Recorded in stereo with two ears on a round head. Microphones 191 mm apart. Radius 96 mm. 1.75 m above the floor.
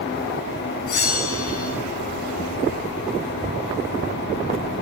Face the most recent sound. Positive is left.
turn(degrees=70)  # may be behind; listen again after turning